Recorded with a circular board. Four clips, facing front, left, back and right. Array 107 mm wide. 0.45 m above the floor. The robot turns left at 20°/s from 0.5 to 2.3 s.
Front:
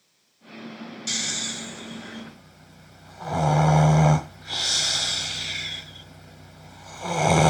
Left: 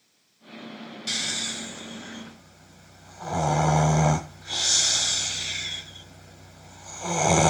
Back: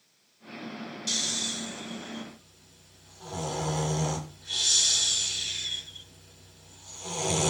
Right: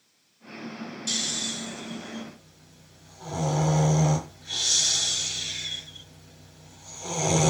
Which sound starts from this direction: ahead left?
Snoring, at 1.1 s.